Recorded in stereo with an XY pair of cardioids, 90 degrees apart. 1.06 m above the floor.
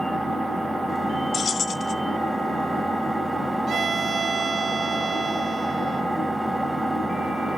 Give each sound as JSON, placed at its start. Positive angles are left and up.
{"t": 0.0, "sound": "an engine running", "azimuth_deg": 0, "distance_m": 3.0}
{"t": 1.3, "sound": "keys jangling", "azimuth_deg": 55, "distance_m": 0.9}
{"t": 3.7, "sound": "a violin", "azimuth_deg": -55, "distance_m": 0.8}